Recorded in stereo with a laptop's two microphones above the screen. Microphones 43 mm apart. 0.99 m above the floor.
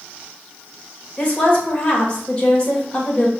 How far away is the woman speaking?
About 1.4 m.